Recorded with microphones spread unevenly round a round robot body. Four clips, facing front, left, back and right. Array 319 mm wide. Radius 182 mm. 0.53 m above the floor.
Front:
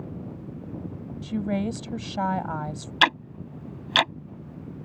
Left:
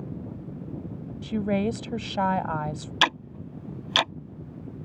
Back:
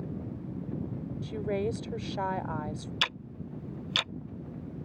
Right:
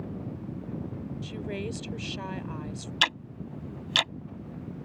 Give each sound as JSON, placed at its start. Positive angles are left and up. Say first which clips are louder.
{"t": 1.2, "sound": "a woman speaking", "louder": "left 12 dB, front 4 dB", "azimuth_deg": 55}
{"t": 3.0, "sound": "ticking", "louder": "left 6 dB, front 18 dB", "azimuth_deg": 20}